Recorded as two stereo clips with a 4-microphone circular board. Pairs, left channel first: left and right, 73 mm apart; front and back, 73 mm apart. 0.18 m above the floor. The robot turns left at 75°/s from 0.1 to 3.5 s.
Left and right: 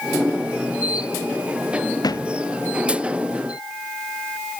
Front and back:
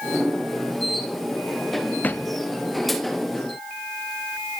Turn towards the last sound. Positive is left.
turn(degrees=-40)